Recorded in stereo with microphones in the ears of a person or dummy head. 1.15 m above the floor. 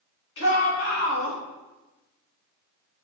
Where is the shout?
60° left (ahead or behind), 1.7 m; by 1.4 s 85° left, 1.0 m.